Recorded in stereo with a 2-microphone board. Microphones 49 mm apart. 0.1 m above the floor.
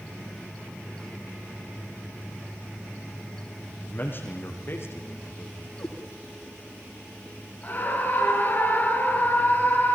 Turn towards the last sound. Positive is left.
turn(degrees=35)  # may be behind; listen again after turning